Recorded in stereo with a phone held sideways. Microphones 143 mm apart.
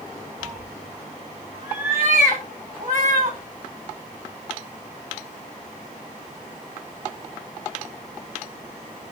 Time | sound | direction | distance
0.4 | a cat meowing | 75° right (ahead or behind) | 1.9 m